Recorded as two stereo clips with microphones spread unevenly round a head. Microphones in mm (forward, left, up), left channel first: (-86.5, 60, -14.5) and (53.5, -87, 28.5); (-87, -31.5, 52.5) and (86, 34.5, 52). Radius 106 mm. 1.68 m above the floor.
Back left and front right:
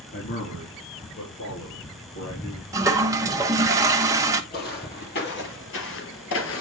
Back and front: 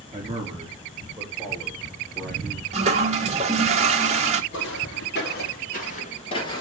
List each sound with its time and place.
0.1 s a man speaking: 85° left, 4 m; by 2.6 s 125° left, 4 m
2.7 s a toilet flushing: 10° right, 0.9 m
4.5 s footsteps: straight behind, 3.5 m; by 6.6 s 135° left, 2.5 m